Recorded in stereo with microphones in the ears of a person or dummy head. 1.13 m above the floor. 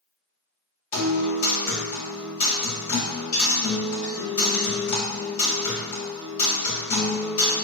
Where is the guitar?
60° left (ahead or behind), 2.0 m.